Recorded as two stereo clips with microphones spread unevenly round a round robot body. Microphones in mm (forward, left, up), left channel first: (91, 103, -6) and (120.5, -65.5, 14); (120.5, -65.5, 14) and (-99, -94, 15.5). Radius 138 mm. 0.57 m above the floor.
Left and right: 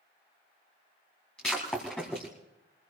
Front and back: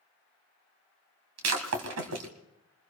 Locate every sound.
1.4 s breaking glass: 175° right, 1.9 m